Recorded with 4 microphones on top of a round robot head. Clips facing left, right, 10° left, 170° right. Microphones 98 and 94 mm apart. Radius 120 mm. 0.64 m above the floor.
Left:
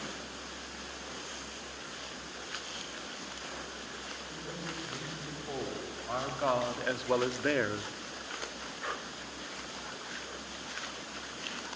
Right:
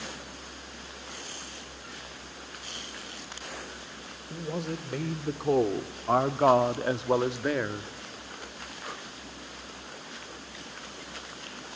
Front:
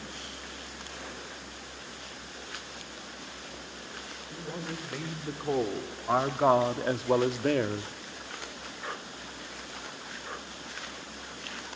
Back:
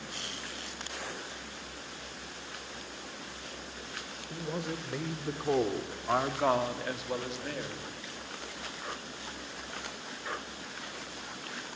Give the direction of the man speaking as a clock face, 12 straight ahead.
3 o'clock.